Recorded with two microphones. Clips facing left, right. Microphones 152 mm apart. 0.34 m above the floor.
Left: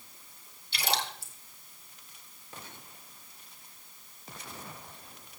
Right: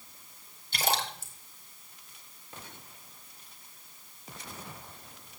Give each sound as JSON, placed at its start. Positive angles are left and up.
{"t": 0.7, "sound": "a splash", "side_deg": -45, "distance_m": 2.5}